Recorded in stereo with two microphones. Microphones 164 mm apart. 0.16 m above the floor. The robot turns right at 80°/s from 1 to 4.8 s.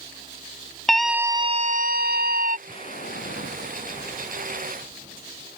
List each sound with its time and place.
0.9 s a scream: straight behind; by 2.6 s 55° right
2.7 s an explosion: 30° left; by 5.5 s 160° right